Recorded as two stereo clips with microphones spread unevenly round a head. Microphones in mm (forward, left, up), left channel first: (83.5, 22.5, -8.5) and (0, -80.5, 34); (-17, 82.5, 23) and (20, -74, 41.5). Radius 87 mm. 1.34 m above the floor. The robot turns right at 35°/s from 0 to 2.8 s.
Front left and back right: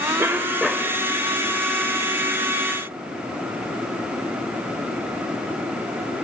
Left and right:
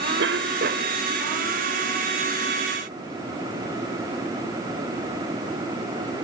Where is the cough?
60° right; by 1.0 s 30° right.